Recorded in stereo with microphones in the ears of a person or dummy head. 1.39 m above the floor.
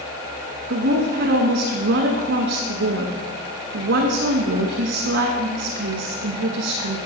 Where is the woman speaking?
60° right (ahead or behind), 1.4 m.